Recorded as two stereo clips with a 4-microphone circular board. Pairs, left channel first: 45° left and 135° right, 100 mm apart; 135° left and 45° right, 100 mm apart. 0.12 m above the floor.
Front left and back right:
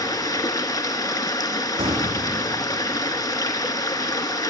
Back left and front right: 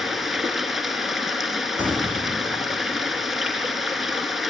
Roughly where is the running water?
Ahead left.